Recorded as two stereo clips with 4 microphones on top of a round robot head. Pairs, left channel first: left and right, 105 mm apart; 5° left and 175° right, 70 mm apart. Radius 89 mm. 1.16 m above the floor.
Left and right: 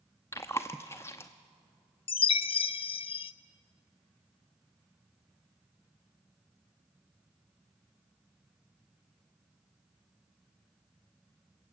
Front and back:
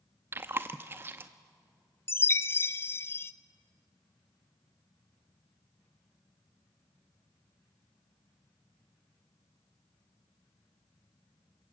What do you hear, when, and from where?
0.3 s chewing: 155° left, 0.6 m
2.1 s a chime: 60° left, 0.8 m